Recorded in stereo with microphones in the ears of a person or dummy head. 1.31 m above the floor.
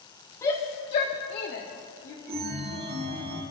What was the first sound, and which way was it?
A shout, 20° left (ahead or behind).